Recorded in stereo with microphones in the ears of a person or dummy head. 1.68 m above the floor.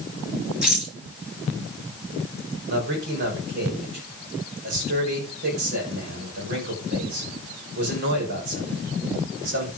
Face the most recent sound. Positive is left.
turn(degrees=-55)  # may be behind; listen again after turning